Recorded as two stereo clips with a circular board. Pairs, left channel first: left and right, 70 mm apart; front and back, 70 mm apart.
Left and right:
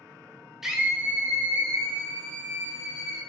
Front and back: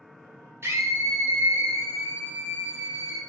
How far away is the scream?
About 0.6 m.